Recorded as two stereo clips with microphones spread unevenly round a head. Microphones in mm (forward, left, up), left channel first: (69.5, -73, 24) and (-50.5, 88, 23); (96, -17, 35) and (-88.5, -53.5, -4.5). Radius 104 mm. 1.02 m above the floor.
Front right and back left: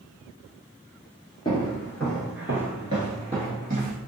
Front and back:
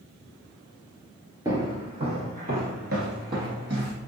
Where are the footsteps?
90° right, 1.0 m; by 3.9 s 160° left, 1.4 m.